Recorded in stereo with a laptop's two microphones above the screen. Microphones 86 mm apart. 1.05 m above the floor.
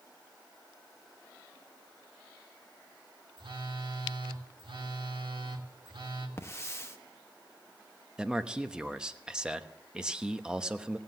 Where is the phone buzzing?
70° right (ahead or behind), 1.6 m.